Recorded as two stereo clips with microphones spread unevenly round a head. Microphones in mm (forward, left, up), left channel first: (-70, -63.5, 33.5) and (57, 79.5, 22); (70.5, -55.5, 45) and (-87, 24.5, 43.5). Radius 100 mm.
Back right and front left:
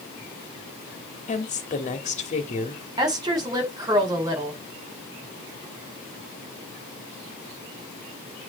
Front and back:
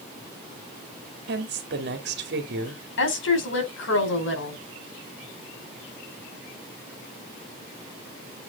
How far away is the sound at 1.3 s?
About 2.5 m.